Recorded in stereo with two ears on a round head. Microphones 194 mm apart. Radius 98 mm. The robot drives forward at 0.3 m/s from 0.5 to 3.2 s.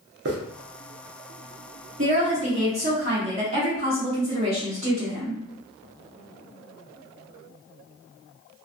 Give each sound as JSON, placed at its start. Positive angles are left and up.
{"t": 0.2, "sound": "a hiss", "side_deg": -55, "distance_m": 0.7}
{"t": 2.0, "sound": "a woman speaking", "side_deg": -35, "distance_m": 1.2}